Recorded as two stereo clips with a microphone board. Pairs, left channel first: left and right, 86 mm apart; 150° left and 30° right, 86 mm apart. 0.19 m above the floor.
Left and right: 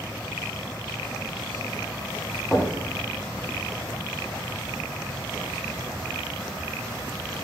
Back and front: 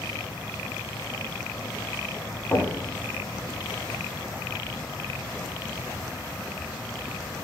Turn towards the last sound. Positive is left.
turn(degrees=180)